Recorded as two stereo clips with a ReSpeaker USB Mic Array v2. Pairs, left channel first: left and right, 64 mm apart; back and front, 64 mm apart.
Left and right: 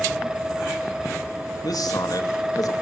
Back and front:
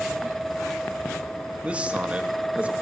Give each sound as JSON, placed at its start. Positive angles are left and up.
{"t": 1.6, "sound": "a man speaking", "azimuth_deg": 70, "distance_m": 3.0}